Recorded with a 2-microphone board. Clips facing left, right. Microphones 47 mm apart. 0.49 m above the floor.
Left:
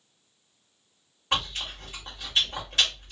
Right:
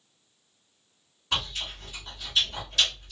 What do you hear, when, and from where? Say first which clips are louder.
1.3 s chewing: left 2 dB; 30° left (ahead or behind), 2 m